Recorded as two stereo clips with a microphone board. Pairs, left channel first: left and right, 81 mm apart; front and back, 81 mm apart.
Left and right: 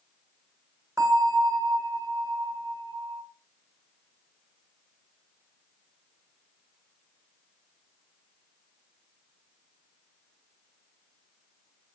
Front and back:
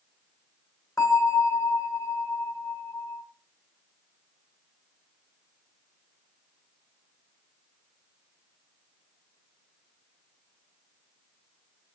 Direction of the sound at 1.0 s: 45° right.